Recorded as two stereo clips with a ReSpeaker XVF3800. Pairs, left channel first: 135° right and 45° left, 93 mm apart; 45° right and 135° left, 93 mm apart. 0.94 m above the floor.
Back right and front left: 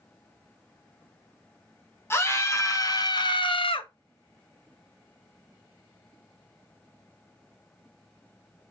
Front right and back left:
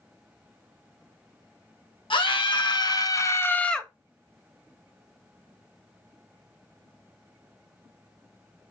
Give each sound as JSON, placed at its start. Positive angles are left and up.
{"t": 2.1, "sound": "a scream", "azimuth_deg": -70, "distance_m": 1.4}